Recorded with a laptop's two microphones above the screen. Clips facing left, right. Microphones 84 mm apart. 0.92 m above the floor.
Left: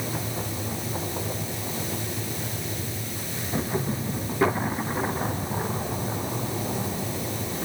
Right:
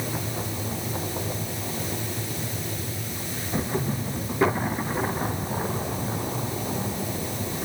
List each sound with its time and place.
Only background noise.